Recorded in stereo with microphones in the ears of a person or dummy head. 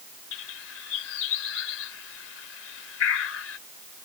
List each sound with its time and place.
0.3 s a bird: 80° left